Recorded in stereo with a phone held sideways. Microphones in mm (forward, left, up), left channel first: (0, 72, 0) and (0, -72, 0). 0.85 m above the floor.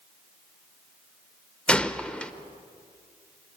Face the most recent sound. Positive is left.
turn(degrees=5)  # may be behind; listen again after turning